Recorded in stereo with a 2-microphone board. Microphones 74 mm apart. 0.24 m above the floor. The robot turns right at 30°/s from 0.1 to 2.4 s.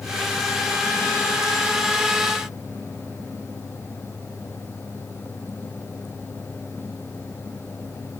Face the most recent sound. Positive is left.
No sound to turn to.